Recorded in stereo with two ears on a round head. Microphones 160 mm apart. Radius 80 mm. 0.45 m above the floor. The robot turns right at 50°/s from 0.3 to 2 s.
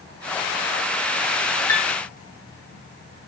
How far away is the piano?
About 0.5 m.